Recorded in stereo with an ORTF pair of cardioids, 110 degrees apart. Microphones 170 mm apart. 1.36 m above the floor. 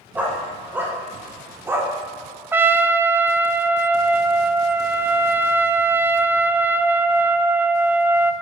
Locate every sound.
0.1 s a dog barking: 10° right, 2.5 m; by 1.9 s 15° right, 1.4 m
2.5 s a trumpet: 10° right, 0.5 m